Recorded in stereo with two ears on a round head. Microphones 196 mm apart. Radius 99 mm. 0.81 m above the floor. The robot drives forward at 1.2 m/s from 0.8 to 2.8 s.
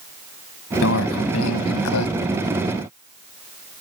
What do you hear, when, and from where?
0.8 s a microwave: 65° left (ahead or behind); by 2.1 s 80° left